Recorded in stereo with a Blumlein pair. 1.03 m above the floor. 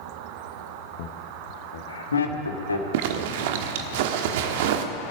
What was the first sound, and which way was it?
Laughter, 45° left.